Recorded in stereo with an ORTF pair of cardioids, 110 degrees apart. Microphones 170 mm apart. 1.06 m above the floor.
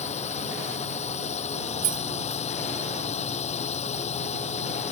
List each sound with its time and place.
0.0 s a drone: 40° left
1.8 s keys jangling: 55° right